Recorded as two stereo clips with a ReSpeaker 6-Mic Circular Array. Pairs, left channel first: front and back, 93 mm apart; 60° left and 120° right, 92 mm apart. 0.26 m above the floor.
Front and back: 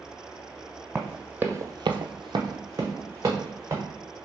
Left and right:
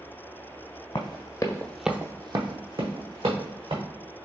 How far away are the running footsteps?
About 1.0 m.